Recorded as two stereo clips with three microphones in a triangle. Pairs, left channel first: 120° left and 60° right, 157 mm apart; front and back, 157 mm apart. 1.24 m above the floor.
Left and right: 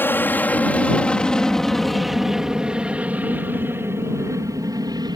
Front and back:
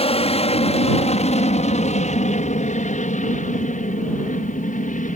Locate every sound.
0.0 s an aircraft: 45° left; by 5.2 s 5° right